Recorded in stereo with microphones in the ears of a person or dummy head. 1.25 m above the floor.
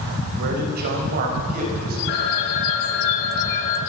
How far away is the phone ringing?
About 6.5 m.